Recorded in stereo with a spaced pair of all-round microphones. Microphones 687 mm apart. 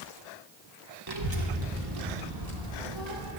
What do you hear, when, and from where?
1.1 s a child speaking: 35° right (ahead or behind), 1.1 m; by 3.3 s 70° right (ahead or behind), 1.8 m